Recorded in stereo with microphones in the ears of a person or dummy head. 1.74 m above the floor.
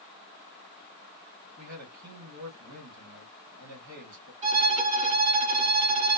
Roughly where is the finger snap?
I don't hear a finger snap.